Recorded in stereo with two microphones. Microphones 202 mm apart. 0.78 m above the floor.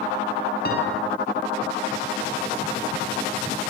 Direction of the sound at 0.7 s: 50° left (ahead or behind).